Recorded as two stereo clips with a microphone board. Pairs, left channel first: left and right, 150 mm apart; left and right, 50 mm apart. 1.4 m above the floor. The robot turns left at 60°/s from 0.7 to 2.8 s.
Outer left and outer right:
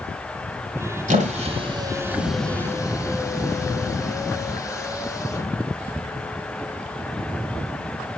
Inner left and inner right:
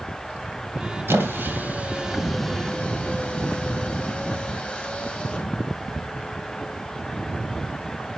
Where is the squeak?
55° right (ahead or behind), 2.0 m; by 5.5 s 20° left (ahead or behind), 2.0 m.